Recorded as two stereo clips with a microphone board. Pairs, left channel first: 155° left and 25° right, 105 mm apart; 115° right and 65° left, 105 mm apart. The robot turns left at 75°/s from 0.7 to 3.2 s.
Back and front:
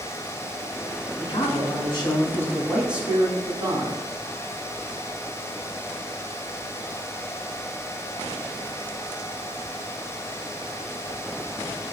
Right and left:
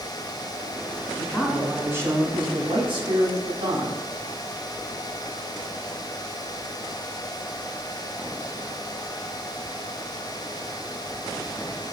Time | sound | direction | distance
1.2 | a man speaking | 175° right | 2 m